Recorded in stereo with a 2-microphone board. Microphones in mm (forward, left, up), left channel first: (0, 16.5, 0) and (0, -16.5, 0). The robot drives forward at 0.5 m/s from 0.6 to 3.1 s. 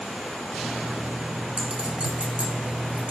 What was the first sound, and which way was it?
A clink, 35° right (ahead or behind).